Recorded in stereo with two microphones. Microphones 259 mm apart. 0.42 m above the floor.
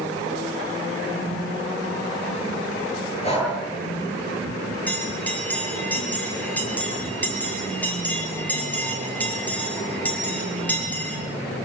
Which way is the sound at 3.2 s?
25° left (ahead or behind).